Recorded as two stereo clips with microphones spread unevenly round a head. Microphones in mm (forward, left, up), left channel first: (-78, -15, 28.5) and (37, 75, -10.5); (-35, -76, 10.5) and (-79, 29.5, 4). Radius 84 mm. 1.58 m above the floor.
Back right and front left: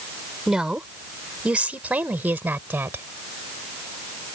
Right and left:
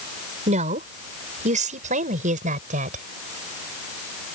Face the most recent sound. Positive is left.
turn(degrees=115)